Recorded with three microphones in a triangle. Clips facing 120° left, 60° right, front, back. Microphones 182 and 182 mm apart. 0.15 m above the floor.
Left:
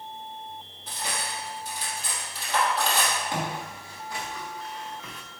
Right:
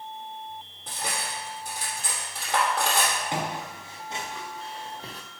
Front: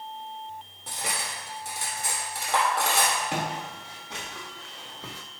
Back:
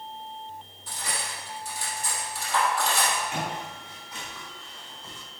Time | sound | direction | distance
0.9 | cutlery clinking | 25° right | 2.5 m
3.3 | footsteps | 10° left | 2.5 m